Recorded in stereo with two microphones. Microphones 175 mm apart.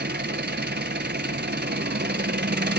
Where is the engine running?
75° right (ahead or behind), 0.7 m.